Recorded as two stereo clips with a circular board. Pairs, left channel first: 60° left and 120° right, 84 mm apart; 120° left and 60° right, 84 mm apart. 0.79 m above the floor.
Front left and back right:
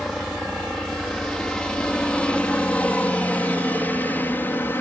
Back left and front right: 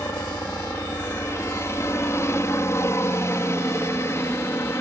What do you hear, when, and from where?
0.0 s a helicopter: 145° left; by 4.8 s 100° left